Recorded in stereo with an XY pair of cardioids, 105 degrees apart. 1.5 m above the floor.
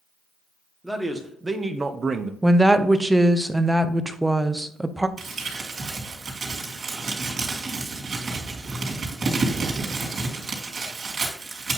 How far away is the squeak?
No squeak in this recording.